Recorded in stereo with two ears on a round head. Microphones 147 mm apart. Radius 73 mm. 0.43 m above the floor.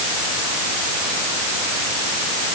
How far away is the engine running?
I don't hear an engine running.